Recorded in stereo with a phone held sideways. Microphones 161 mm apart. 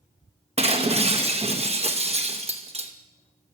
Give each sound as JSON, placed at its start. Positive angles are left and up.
{"t": 0.6, "sound": "breaking glass", "side_deg": -40, "distance_m": 0.8}